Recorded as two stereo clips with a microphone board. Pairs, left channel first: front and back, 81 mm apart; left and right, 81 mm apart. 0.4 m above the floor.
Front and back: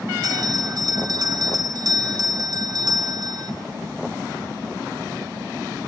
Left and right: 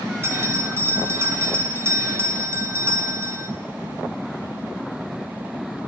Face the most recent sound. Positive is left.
turn(degrees=-150)